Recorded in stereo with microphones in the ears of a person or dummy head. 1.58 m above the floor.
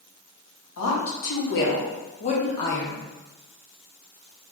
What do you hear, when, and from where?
0.8 s a woman speaking: 75° left (ahead or behind), 1.1 m; by 3.0 s 5° left (ahead or behind), 0.7 m